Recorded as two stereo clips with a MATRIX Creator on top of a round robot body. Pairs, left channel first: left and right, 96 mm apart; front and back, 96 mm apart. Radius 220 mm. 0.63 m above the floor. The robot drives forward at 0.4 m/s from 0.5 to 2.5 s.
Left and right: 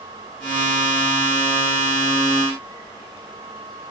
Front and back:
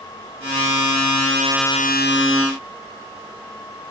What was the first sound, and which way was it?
Only background noise.